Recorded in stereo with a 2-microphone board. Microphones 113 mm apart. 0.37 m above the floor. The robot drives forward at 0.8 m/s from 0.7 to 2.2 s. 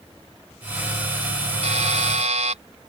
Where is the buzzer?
80° right; by 2.6 s 85° right.